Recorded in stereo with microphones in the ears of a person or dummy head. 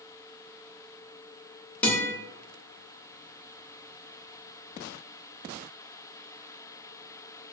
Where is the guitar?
15° left (ahead or behind), 0.6 m.